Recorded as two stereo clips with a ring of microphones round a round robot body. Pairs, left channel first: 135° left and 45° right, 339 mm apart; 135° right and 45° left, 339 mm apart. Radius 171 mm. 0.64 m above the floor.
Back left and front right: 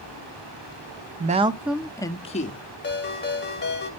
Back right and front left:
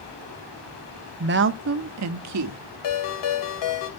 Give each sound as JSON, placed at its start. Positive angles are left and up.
{"t": 1.2, "sound": "a woman speaking", "azimuth_deg": 5, "distance_m": 0.6}
{"t": 2.8, "sound": "a ringtone", "azimuth_deg": -165, "distance_m": 1.9}